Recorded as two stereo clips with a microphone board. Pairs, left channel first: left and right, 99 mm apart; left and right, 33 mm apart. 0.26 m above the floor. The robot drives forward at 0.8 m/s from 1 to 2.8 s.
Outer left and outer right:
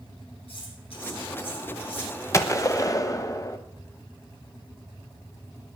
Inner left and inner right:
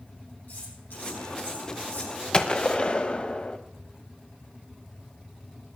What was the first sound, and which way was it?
Cutlery clinking, 75° left (ahead or behind).